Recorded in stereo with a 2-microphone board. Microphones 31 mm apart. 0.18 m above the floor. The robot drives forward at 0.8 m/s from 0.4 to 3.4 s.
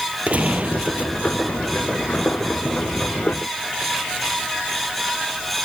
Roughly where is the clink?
No clink in this recording.